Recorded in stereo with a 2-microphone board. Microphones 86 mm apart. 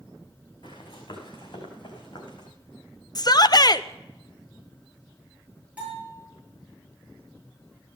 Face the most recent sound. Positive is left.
turn(degrees=-15)  # may be behind; listen again after turning